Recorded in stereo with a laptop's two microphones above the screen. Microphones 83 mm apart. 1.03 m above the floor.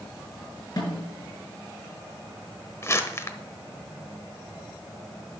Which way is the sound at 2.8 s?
30° left (ahead or behind).